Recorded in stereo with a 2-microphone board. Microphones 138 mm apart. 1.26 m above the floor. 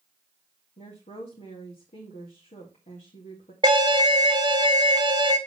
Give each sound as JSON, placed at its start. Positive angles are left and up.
{"t": 0.8, "sound": "a woman speaking", "side_deg": 65, "distance_m": 2.5}
{"t": 3.6, "sound": "an alarm", "side_deg": -30, "distance_m": 1.2}